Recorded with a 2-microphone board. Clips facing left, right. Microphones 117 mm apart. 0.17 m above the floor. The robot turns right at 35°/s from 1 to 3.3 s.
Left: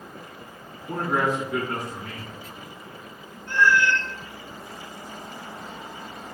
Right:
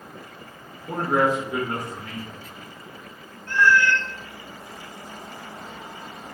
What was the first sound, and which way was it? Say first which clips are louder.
A man speaking: right 3 dB; 30° right (ahead or behind).